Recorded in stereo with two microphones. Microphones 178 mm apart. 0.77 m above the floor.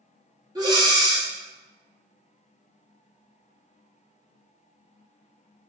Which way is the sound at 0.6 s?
20° right (ahead or behind).